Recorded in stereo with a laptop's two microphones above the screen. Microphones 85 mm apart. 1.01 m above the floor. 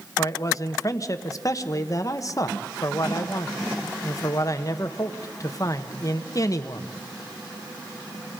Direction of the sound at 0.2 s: 40° left (ahead or behind).